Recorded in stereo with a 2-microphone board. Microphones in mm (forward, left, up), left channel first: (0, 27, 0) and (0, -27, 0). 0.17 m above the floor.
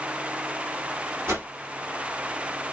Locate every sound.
1.3 s a whoosh: 50° right (ahead or behind), 2 m